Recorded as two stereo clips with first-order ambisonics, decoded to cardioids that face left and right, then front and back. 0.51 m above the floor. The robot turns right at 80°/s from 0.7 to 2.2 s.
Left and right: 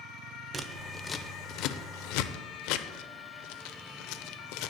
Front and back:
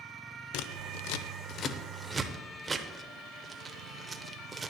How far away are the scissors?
About 0.7 m.